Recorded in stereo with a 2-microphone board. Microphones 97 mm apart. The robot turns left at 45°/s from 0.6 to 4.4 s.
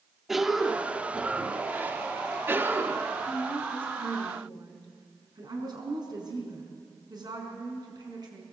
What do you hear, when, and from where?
0.3 s a cough: 5° right (ahead or behind), 1.0 m; by 3.1 s 20° right (ahead or behind), 1.0 m
3.3 s a woman speaking: 5° left, 5 m; by 8.4 s 45° right, 5 m